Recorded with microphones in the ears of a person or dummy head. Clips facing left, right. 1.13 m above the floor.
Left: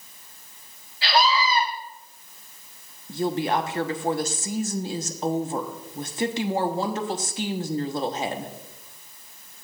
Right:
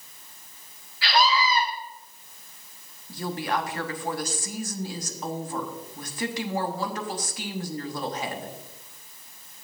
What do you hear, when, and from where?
1.0 s a scream: 30° left (ahead or behind), 6 m
3.1 s a woman speaking: 20° left (ahead or behind), 0.9 m